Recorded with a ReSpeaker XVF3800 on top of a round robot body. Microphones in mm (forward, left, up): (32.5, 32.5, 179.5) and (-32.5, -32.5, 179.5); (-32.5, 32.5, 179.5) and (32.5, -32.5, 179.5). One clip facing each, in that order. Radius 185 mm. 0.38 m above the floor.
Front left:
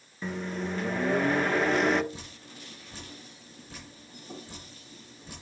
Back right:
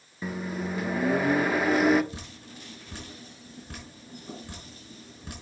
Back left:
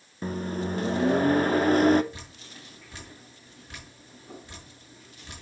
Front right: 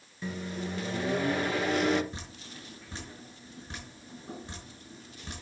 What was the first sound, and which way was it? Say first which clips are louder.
A microwave: back right 1 dB, back left 6 dB; 145° left.